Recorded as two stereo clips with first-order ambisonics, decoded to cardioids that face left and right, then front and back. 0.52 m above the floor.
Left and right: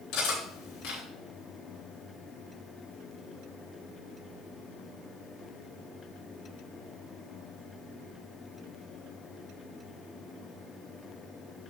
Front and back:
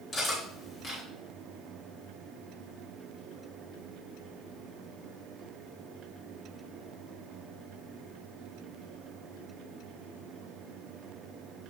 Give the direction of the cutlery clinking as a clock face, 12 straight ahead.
10 o'clock.